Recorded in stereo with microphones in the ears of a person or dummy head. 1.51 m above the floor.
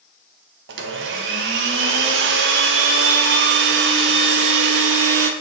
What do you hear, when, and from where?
0.7 s a blender: 70° right (ahead or behind), 1.0 m